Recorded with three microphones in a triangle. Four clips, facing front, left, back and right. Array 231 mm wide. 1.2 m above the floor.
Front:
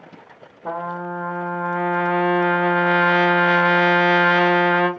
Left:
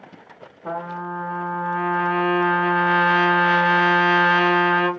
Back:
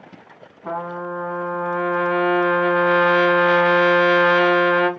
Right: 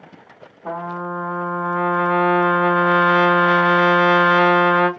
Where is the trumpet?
5° right, 2 m.